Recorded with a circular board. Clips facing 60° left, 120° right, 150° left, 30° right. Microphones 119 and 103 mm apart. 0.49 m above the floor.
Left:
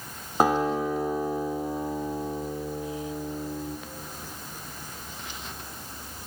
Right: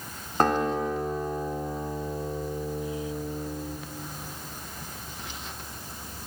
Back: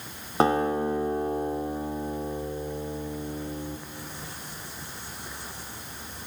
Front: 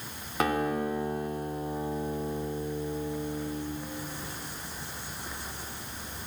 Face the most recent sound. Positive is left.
turn(degrees=135)